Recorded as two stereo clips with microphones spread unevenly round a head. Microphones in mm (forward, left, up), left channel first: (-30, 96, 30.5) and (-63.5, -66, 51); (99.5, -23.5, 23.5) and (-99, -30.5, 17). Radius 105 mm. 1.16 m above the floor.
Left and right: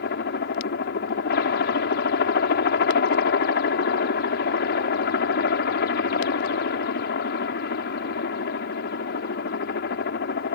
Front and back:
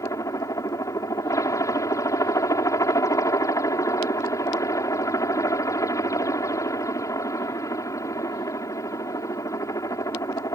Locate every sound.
0.0 s a helicopter: 80° left